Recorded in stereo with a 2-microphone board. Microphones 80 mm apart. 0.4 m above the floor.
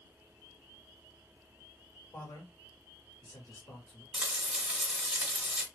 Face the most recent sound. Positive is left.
turn(degrees=-5)  # may be behind; listen again after turning